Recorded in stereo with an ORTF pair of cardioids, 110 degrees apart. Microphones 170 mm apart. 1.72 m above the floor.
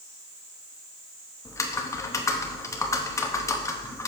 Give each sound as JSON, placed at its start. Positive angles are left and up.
{"t": 1.4, "sound": "typing on a keyboard", "azimuth_deg": 20, "distance_m": 0.9}